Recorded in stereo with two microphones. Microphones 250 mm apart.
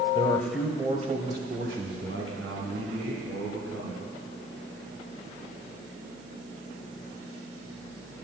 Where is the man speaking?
20° left (ahead or behind), 1.0 m; by 4.0 s 70° right (ahead or behind), 3.5 m.